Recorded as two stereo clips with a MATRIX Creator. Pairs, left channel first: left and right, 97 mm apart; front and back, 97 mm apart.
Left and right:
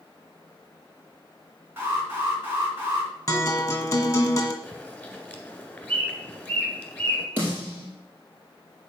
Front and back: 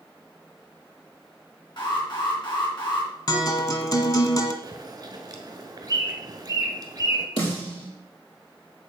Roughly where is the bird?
Behind.